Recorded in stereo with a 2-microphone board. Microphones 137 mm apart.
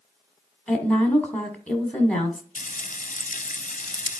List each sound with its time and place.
0.7 s a woman speaking: 10° left (ahead or behind), 1.2 m
2.5 s frying: 70° left (ahead or behind), 0.7 m